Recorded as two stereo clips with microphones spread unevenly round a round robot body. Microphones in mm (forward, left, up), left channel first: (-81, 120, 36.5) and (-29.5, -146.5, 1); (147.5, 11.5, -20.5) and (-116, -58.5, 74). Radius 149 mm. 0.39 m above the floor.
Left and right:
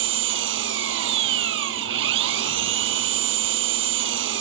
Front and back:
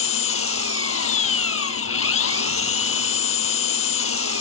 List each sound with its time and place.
0.0 s an engine running: 25° right